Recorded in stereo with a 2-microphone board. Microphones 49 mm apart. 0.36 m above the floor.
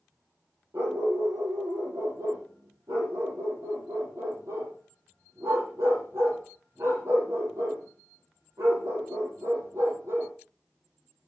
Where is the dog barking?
80° right, 5.5 m.